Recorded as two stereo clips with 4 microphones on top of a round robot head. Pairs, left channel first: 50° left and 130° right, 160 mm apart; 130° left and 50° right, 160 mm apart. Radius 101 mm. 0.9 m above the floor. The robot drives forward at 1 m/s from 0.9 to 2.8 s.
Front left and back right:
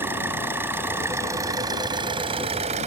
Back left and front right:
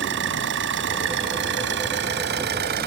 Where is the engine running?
50° right; by 2.9 s 75° right.